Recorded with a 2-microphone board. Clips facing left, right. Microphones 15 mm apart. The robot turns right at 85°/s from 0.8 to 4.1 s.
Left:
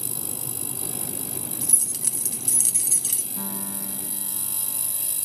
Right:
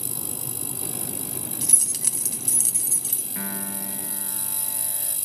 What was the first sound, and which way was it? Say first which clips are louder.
Keys jangling: right 2 dB; 80° right.